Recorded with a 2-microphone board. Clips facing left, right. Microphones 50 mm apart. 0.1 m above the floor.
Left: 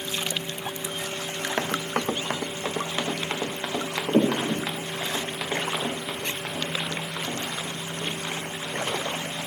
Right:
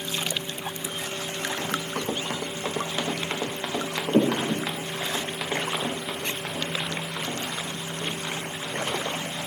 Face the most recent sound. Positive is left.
turn(degrees=0)  # may be behind; listen again after turning